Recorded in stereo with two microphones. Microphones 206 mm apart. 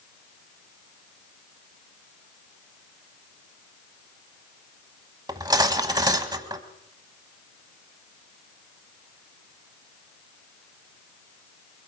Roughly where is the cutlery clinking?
Centre.